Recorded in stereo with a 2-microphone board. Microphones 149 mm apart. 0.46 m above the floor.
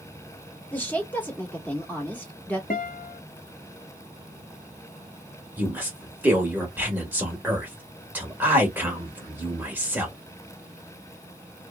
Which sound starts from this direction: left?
A guitar, at 2.7 s.